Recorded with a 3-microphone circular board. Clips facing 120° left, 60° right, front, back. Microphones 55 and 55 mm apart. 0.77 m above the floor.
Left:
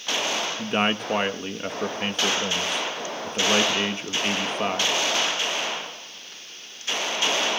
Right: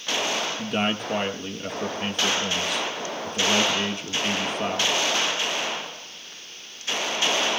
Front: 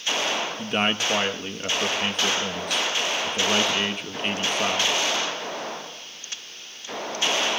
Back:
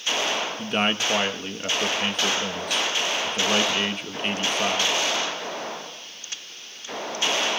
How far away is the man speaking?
About 1.0 m.